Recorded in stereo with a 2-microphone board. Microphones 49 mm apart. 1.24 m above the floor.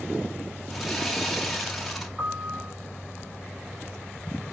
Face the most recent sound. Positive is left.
turn(degrees=-10)  # may be behind; listen again after turning